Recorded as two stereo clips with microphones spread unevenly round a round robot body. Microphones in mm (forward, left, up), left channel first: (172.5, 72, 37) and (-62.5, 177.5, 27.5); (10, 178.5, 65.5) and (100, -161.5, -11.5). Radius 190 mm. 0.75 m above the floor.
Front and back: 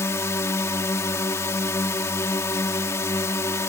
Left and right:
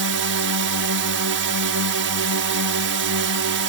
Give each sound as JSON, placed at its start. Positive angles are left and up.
{"t": 0.0, "sound": "a drone", "azimuth_deg": -105}